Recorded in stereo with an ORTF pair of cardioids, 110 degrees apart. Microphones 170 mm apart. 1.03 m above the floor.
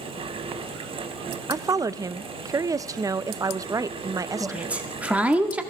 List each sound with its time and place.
0.0 s a fan: 30° right, 0.8 m
1.5 s a woman speaking: 20° right, 0.5 m
4.4 s a woman speaking: 10° right, 1.7 m